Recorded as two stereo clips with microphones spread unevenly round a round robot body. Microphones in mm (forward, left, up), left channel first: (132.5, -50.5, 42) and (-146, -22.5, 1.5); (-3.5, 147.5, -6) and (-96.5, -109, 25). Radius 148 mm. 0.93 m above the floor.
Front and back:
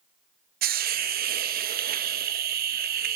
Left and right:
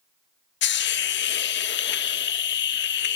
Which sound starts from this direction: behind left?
A hiss, at 0.6 s.